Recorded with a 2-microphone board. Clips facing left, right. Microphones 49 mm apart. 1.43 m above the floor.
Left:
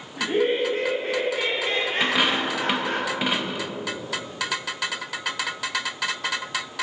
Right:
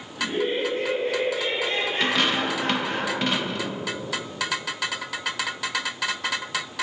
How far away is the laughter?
About 1.6 m.